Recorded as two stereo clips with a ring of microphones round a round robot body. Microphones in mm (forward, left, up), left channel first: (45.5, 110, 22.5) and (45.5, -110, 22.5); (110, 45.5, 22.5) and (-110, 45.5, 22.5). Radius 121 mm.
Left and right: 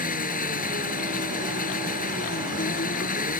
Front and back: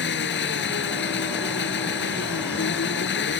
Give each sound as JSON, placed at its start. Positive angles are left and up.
{"t": 0.0, "sound": "an engine running", "azimuth_deg": 40}